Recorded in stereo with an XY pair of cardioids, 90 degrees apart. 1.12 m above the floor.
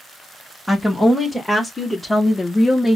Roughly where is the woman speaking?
Ahead.